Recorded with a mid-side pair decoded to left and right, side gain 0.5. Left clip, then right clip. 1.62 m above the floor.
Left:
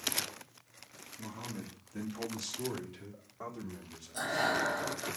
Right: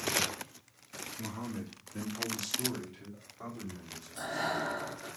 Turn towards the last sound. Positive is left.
turn(degrees=45)